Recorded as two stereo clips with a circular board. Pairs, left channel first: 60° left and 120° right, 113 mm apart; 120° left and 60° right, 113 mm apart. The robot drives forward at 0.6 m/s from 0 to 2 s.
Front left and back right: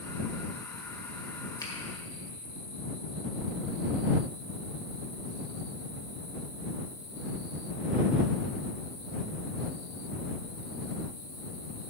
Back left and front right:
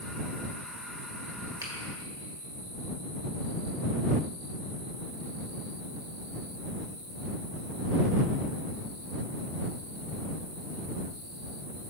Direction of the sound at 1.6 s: Straight ahead.